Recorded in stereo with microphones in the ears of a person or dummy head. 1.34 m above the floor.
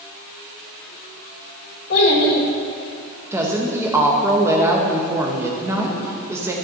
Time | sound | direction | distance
1.9 | a child speaking | 50° left (ahead or behind) | 1.6 m
3.3 | a woman speaking | 10° right (ahead or behind) | 0.8 m